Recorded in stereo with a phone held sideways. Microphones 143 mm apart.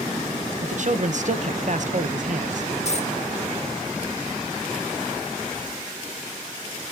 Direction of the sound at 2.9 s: 50° left (ahead or behind).